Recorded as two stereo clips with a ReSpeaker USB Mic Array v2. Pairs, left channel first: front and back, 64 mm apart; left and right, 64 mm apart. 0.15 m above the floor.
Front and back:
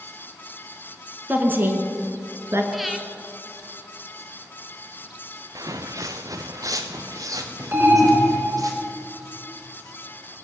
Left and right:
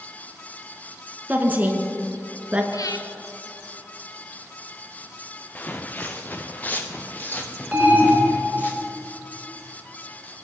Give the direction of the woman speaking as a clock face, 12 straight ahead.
5 o'clock.